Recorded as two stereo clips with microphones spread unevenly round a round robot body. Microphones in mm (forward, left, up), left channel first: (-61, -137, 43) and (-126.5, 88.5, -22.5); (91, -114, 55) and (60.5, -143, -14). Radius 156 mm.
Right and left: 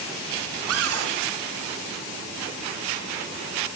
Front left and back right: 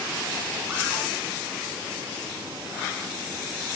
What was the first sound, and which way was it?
A cupboard door, 125° left.